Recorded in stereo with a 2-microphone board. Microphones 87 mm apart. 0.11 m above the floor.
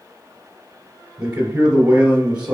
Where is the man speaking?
10° right (ahead or behind), 2 m.